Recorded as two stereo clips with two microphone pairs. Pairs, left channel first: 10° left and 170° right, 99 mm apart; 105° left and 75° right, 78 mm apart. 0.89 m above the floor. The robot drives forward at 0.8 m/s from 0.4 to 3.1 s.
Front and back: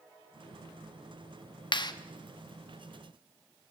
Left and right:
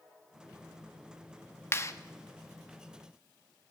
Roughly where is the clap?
Ahead left.